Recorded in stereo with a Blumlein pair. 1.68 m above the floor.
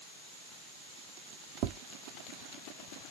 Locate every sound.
1.6 s tapping: 40° right, 0.5 m